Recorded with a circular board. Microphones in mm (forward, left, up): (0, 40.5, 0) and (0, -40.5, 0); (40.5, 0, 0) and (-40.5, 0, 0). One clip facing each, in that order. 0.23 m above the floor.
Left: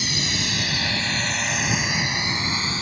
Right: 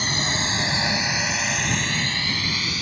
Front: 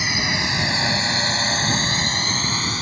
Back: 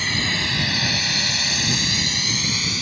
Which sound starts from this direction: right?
A drone, at 0.0 s.